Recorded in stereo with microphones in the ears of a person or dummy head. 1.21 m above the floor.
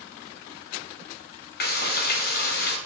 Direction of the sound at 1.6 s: 45° left (ahead or behind).